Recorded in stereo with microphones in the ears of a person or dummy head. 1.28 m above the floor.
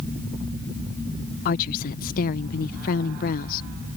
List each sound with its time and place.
1.4 s a woman speaking: 50° left (ahead or behind)